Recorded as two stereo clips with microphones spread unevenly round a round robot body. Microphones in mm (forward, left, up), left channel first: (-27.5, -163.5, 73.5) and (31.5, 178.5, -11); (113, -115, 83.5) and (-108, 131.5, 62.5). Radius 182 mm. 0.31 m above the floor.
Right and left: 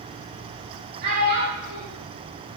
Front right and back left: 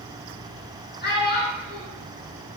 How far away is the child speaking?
About 4 m.